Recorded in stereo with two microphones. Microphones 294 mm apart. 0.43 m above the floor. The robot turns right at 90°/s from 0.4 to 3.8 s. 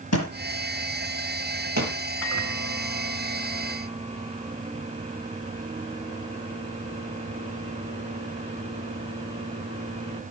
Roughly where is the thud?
Left.